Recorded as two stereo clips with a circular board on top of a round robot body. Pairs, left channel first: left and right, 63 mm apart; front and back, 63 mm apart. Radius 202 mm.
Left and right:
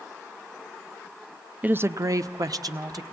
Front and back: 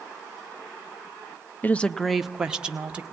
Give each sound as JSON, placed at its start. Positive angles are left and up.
{"t": 1.6, "sound": "a woman speaking", "azimuth_deg": -40, "distance_m": 1.0}